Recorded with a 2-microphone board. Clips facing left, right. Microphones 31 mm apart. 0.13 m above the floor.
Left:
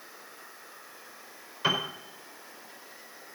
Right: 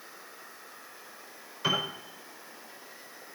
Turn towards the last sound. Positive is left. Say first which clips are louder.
# left 1 dB
turn(degrees=10)  # may be behind; listen again after turning